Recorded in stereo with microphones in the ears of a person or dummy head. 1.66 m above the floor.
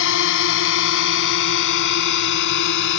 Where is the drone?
75° left (ahead or behind); by 3.0 s 65° left (ahead or behind).